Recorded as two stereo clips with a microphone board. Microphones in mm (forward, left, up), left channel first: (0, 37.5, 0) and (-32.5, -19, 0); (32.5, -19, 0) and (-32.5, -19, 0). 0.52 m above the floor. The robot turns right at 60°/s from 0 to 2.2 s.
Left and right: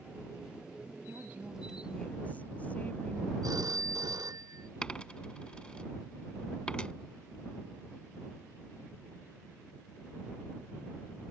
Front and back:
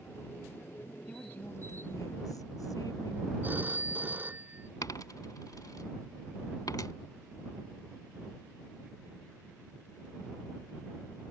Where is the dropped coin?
15° right.